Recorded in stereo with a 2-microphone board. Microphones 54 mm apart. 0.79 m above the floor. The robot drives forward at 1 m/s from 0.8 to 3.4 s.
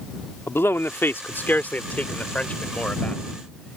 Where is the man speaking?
50° left (ahead or behind); by 3.8 s 20° left (ahead or behind).